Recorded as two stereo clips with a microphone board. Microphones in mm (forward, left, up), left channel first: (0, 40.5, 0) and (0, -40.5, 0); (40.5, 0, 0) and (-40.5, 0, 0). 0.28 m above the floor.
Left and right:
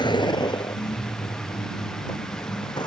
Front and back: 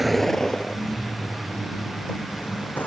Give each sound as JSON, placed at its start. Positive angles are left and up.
{"t": 0.0, "sound": "a vehicle", "azimuth_deg": 90}